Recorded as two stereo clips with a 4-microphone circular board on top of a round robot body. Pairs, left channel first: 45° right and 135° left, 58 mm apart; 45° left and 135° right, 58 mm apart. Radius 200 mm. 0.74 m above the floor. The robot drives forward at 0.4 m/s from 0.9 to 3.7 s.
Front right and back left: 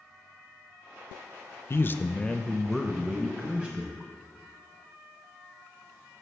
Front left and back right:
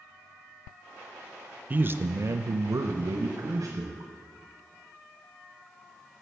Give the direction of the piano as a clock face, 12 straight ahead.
No piano in this recording.